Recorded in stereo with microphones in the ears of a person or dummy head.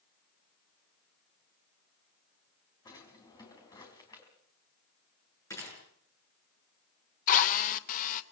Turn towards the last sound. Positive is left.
turn(degrees=45)  # may be behind; listen again after turning